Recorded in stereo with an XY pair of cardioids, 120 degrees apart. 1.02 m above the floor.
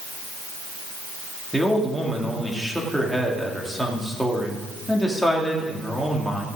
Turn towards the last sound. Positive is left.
turn(degrees=0)